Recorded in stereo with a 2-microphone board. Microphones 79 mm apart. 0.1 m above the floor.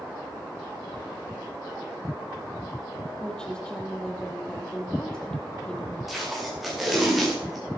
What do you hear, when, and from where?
3.2 s a woman speaking: 10° left (ahead or behind), 3.5 m
6.1 s tape being pulled: centre (ahead or behind), 7 m